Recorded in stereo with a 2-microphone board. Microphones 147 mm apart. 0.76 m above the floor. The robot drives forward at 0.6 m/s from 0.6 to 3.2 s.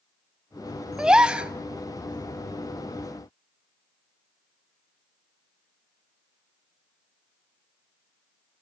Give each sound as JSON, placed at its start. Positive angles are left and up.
{"t": 1.0, "sound": "a gasp", "side_deg": -5, "distance_m": 1.3}